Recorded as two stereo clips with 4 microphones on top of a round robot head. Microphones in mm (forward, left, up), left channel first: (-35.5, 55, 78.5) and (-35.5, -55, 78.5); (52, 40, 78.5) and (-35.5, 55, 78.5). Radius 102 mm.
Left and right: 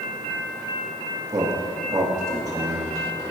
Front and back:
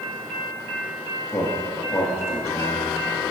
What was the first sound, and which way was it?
A man speaking, 50° right.